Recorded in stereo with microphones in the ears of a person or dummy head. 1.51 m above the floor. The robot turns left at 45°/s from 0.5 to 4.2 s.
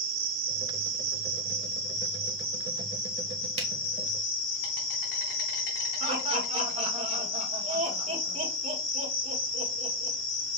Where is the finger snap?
35° right (ahead or behind), 1.8 m; by 3.7 s 40° right (ahead or behind), 1.8 m.